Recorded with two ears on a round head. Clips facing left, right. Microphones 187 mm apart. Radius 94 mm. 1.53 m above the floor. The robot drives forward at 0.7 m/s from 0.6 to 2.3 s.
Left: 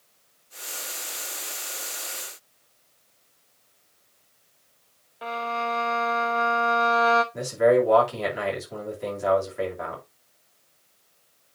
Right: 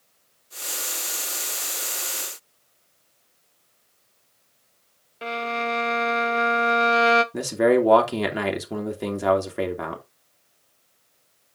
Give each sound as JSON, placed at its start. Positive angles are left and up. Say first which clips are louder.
{"t": 5.2, "sound": "a violin", "louder": "right 2 dB", "side_deg": -30, "distance_m": 1.0}
{"t": 7.3, "sound": "a man speaking", "louder": "left 1 dB", "side_deg": -70, "distance_m": 2.5}